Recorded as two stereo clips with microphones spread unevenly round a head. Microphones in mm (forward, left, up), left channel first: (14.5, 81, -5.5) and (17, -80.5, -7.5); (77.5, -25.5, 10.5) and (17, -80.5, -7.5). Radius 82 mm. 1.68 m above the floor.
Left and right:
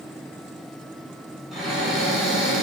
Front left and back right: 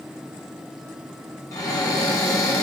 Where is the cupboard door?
Straight ahead, 1.4 m.